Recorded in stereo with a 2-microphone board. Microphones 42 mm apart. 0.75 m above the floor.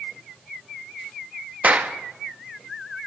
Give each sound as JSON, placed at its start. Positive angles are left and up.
{"t": 1.6, "sound": "a clap", "side_deg": -35, "distance_m": 0.9}